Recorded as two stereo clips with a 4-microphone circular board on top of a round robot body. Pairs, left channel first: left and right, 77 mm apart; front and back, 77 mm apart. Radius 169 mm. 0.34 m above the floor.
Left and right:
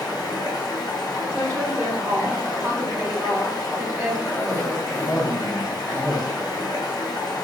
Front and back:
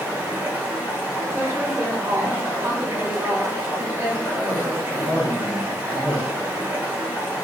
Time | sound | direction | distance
0.0 | running water | 110° left | 1.3 m
1.3 | a woman speaking | 155° right | 1.5 m
4.2 | a cough | 50° left | 1.0 m